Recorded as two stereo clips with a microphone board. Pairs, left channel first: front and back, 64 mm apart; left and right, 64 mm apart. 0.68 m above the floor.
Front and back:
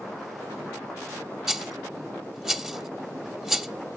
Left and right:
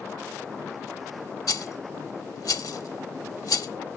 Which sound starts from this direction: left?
A rattle, at 1.5 s.